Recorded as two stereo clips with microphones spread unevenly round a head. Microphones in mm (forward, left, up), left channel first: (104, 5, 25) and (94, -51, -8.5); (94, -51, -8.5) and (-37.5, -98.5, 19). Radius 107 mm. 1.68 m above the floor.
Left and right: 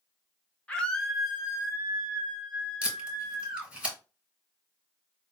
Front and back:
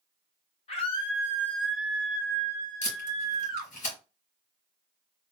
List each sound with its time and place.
0.7 s a scream: 75° left, 0.7 m; by 3.7 s 130° right, 1.2 m
2.8 s tape being pulled: 10° right, 3 m